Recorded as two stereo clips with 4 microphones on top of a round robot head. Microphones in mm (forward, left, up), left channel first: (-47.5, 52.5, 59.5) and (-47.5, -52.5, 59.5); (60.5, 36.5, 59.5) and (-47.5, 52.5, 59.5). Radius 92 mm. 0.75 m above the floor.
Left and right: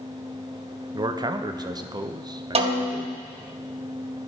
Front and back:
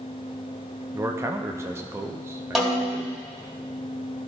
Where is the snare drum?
100° right, 1.5 m.